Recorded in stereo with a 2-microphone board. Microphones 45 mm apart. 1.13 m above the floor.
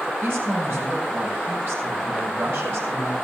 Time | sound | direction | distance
0.2 | a woman speaking | 65° right (ahead or behind) | 6.5 m